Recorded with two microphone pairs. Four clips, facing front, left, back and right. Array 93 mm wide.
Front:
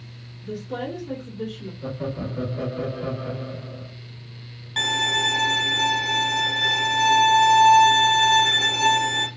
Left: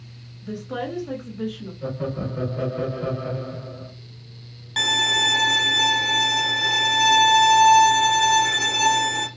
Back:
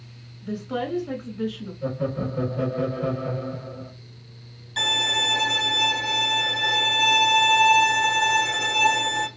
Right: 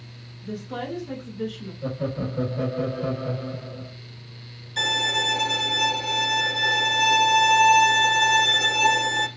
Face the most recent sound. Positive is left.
turn(degrees=60)